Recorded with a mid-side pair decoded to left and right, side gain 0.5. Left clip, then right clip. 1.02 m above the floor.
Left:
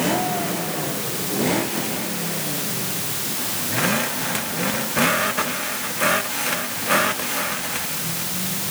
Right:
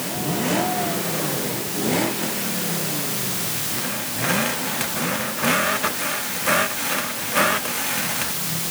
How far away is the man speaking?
No man speaking in this recording.